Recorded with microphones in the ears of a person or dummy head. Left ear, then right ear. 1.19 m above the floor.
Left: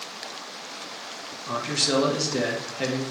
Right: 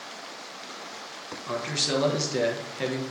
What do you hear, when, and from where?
1.5 s a man speaking: 10° right (ahead or behind), 0.6 m